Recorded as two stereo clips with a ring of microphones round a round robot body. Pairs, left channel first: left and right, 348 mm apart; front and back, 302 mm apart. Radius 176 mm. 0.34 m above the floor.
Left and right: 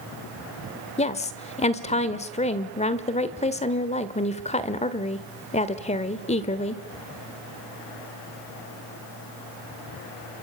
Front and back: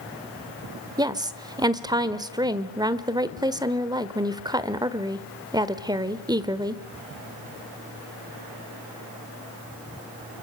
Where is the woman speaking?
125° left, 1.3 m.